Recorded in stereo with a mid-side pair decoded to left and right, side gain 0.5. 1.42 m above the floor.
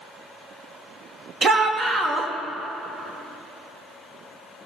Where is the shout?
40° right, 2.5 m.